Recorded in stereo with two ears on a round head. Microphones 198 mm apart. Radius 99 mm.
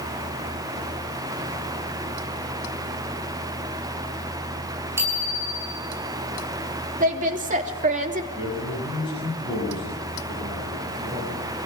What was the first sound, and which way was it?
A bicycle bell, 10° right (ahead or behind).